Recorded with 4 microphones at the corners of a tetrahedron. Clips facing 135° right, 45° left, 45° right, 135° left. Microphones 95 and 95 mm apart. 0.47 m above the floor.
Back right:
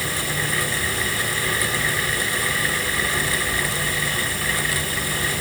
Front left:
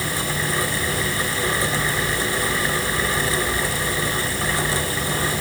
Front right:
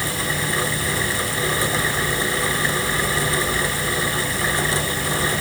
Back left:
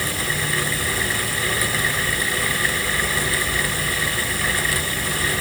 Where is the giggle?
No giggle in this recording.